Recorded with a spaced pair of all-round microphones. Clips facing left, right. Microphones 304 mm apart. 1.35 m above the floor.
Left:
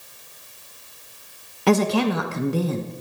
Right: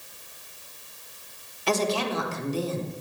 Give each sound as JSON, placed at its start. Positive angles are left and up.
{"t": 1.7, "sound": "a woman speaking", "side_deg": 65, "distance_m": 1.3}